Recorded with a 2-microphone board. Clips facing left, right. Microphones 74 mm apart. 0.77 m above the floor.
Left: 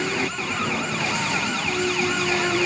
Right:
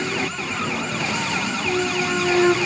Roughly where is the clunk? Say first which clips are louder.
Right 3 dB; right.